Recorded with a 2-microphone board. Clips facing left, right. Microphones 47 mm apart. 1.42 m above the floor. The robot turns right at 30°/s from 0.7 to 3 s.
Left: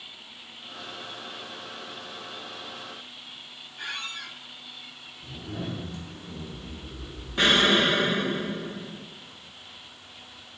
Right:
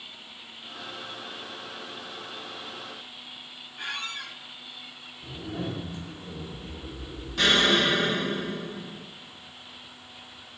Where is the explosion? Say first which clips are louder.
Left 1 dB; 25° left (ahead or behind), 0.7 m.